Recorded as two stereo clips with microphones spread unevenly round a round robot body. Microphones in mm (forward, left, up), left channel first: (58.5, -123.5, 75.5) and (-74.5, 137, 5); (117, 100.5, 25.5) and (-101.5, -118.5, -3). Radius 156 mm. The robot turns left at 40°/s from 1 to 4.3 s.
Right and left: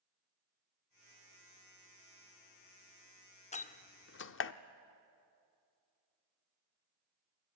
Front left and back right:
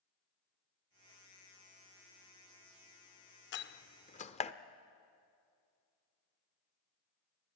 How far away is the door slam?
About 0.7 m.